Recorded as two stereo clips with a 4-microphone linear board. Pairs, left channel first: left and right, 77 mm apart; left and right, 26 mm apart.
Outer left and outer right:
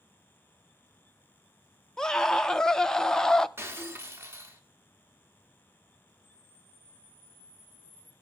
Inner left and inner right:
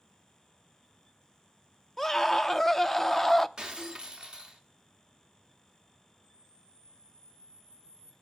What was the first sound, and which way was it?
A scream, 10° left (ahead or behind).